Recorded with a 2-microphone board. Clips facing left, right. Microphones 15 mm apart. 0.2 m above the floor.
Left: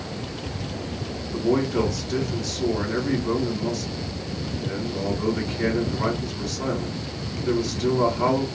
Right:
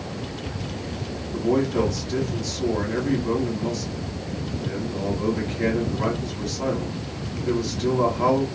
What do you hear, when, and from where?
1.3 s a man speaking: 25° right (ahead or behind), 1.7 m